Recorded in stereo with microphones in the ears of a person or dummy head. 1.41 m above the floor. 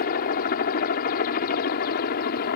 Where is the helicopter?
45° left (ahead or behind); by 2.6 s 50° left (ahead or behind).